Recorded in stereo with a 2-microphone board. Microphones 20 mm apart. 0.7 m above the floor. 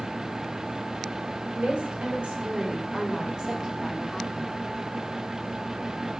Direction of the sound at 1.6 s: 75° right (ahead or behind).